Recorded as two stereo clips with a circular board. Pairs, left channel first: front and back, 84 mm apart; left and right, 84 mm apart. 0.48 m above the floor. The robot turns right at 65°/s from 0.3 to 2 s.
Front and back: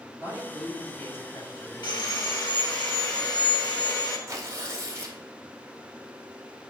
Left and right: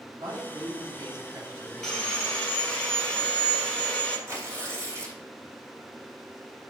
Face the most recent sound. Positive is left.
turn(degrees=-135)